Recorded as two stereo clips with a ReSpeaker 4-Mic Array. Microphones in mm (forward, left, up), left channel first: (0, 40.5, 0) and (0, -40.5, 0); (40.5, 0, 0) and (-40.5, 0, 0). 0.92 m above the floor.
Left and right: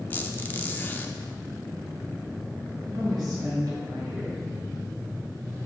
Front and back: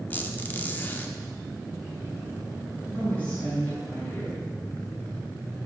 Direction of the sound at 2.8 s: 65° right.